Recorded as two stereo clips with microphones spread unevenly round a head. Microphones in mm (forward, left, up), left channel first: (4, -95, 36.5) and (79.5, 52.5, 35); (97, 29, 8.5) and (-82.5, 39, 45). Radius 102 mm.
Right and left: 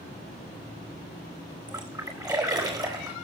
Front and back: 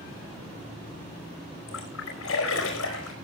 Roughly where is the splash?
Ahead.